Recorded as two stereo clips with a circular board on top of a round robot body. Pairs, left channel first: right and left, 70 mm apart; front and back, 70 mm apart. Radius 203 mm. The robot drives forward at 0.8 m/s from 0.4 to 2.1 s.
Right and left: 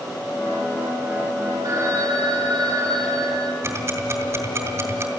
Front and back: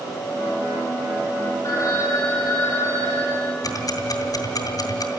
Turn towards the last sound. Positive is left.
turn(degrees=35)